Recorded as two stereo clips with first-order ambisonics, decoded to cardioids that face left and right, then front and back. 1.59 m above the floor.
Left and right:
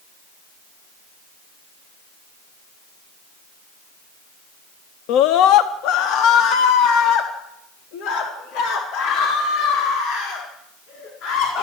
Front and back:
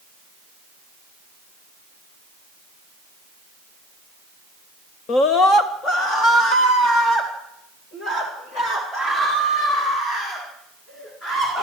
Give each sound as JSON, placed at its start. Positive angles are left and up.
{"t": 5.1, "sound": "a scream", "azimuth_deg": 60, "distance_m": 0.7}